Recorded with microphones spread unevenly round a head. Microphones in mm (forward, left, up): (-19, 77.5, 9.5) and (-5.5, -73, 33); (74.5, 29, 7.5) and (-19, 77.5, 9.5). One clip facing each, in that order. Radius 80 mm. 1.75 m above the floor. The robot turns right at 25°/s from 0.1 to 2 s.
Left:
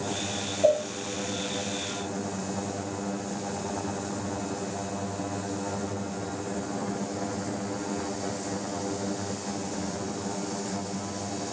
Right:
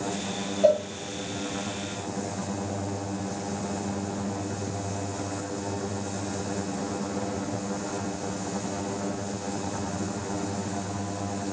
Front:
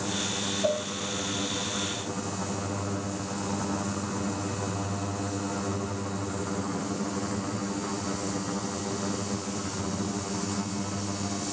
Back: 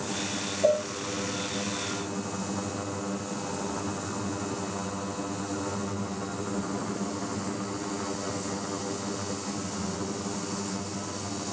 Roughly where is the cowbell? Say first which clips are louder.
Right 2 dB, back 5 dB; behind.